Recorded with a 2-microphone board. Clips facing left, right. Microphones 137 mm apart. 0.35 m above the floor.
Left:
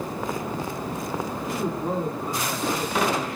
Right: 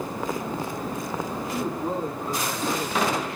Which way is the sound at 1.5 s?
15° left (ahead or behind).